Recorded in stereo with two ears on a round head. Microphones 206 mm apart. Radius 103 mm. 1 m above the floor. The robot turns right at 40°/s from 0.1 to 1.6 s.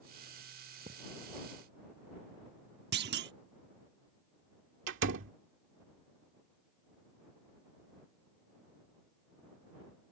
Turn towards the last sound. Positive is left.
turn(degrees=-60)  # may be behind; listen again after turning